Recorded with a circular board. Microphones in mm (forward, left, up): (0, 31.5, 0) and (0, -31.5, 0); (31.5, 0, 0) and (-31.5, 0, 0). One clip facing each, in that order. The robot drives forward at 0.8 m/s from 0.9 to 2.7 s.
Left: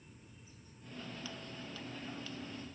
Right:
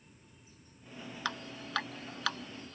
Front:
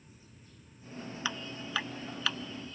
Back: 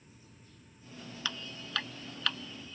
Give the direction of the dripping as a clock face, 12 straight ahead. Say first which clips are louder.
Right 7 dB, front 2 dB; 2 o'clock.